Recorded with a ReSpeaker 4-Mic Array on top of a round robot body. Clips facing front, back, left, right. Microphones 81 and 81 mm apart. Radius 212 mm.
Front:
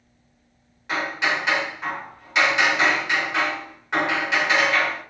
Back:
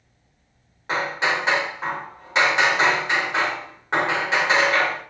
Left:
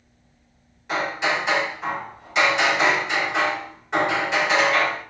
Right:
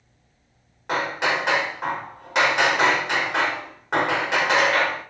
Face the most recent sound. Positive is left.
turn(degrees=-120)